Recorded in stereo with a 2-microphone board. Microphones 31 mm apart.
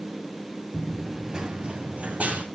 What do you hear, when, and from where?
0.7 s running footsteps: 10° left (ahead or behind), 1.3 m; by 2.5 s 50° right (ahead or behind), 2.5 m